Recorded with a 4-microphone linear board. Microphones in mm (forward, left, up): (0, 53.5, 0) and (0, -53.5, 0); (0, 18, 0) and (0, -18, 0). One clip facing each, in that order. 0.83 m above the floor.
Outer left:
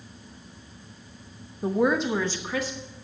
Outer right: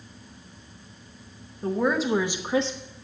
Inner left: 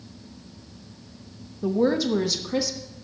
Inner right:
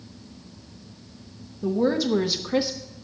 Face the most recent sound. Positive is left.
turn(degrees=-30)  # may be behind; listen again after turning